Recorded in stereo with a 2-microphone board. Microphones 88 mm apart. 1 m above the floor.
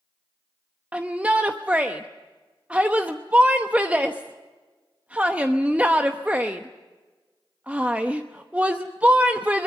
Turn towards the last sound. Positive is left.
turn(degrees=-15)  # may be behind; listen again after turning